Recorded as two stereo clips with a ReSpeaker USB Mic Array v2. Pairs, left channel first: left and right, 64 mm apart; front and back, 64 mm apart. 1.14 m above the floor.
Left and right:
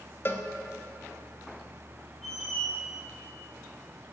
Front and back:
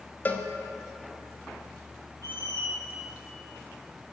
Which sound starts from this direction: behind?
A squeak, at 2.2 s.